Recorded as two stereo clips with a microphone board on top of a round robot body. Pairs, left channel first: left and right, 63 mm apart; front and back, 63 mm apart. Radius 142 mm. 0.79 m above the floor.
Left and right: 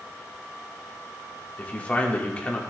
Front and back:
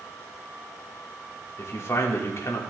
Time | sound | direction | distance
1.6 | a man speaking | 25° left | 1.8 m